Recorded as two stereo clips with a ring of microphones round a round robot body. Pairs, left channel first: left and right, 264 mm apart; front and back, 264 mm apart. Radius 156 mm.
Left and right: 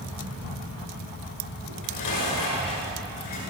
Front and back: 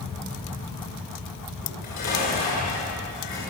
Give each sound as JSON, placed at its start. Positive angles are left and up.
{"t": 1.6, "sound": "dishes clattering", "azimuth_deg": 65, "distance_m": 8.5}